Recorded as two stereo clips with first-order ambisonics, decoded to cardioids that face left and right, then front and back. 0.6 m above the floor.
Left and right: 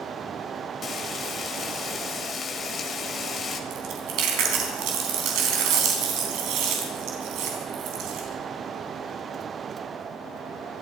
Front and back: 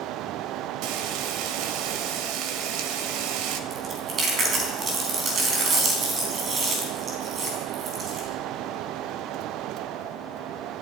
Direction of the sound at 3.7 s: 120° right.